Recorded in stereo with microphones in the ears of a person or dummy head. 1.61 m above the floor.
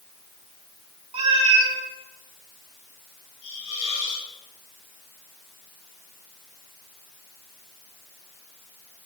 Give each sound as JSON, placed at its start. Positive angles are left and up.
{"t": 1.1, "sound": "a cat meowing", "side_deg": -30, "distance_m": 1.6}
{"t": 3.4, "sound": "a hiss", "side_deg": 85, "distance_m": 5.0}